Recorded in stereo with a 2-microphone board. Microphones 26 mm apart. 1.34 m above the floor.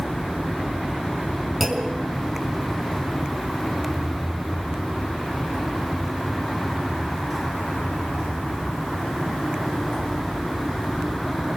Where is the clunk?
5° right (ahead or behind), 4.5 m.